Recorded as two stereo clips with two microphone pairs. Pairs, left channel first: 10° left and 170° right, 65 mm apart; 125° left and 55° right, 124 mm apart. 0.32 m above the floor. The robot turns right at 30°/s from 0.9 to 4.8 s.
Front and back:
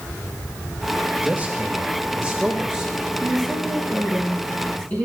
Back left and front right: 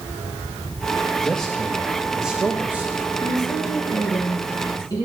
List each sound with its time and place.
1.2 s a man speaking: 160° right, 0.9 m; by 3.1 s 105° right, 0.9 m
3.2 s a woman speaking: 30° left, 3.5 m; by 5.0 s 75° left, 3.5 m